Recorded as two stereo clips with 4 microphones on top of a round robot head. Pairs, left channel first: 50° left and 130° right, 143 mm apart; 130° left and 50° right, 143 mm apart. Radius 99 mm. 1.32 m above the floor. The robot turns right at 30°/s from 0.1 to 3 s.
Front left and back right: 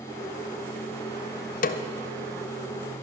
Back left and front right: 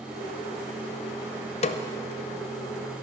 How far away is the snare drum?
About 0.5 m.